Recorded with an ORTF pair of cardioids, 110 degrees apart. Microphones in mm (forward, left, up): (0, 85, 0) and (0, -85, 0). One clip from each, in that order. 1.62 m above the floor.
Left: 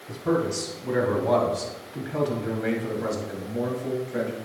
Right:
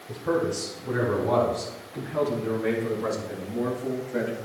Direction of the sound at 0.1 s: 55° left.